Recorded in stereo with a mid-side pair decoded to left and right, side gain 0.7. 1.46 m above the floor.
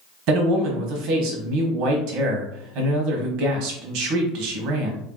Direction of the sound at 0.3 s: 65° right.